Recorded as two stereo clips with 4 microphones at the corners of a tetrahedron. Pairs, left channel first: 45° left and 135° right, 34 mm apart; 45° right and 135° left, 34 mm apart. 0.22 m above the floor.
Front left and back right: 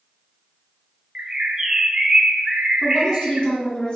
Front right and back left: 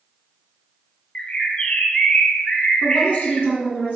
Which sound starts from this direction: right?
A bird, at 1.1 s.